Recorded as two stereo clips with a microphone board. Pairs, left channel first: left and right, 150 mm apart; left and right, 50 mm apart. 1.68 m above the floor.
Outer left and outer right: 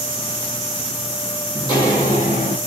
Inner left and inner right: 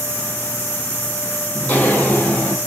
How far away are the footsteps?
About 3 m.